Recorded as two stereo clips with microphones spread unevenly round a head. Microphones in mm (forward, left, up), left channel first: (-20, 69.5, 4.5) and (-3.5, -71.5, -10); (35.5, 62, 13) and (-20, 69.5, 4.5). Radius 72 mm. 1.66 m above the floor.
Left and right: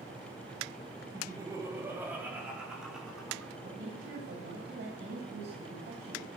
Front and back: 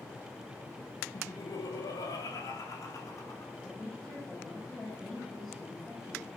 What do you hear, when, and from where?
1.1 s laughter: 15° right, 3.5 m; by 3.5 s 10° left, 6 m
3.6 s a woman speaking: 95° right, 8.5 m